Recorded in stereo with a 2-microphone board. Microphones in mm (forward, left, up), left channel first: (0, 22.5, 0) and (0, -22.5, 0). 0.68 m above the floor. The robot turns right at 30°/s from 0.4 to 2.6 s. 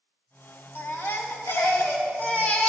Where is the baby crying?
90° left, 1.3 m; by 2.7 s 145° left, 1.3 m.